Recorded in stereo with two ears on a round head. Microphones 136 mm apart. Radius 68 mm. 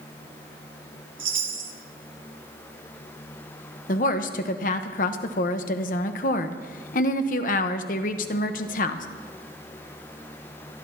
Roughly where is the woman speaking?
Left.